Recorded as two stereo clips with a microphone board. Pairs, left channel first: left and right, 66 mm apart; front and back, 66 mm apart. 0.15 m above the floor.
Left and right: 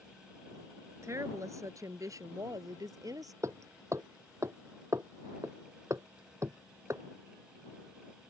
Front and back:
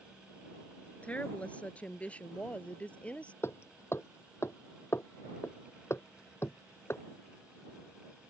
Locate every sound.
1.0 s a woman speaking: 65° right; by 3.3 s 70° right
3.4 s hammering: 50° right